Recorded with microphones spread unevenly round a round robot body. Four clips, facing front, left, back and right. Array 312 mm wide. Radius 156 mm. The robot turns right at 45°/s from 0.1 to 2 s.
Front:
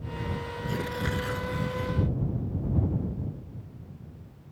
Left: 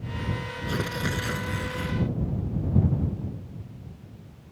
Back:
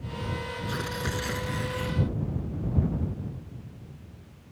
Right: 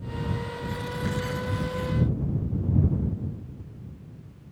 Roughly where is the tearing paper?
Left.